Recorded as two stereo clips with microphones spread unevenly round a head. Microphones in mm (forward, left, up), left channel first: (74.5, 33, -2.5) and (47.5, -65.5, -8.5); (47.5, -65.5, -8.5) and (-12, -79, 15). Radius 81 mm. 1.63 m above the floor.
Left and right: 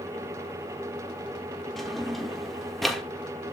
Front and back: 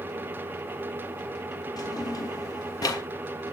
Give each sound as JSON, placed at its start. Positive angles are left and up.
{"t": 1.8, "sound": "a drawer", "azimuth_deg": -10, "distance_m": 1.4}